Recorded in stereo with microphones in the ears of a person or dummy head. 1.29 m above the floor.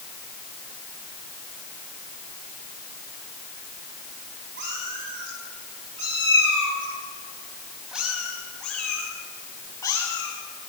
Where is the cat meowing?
60° right (ahead or behind), 5 m; by 10.3 s 15° left (ahead or behind), 6.5 m.